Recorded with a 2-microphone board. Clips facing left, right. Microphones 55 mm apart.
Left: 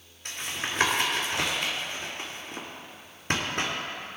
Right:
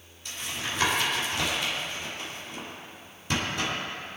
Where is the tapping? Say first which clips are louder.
Left 1 dB; 50° left (ahead or behind), 3 m.